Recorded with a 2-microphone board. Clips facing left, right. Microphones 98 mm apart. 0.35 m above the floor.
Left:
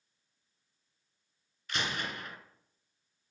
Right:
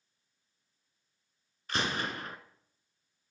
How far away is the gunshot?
About 0.8 m.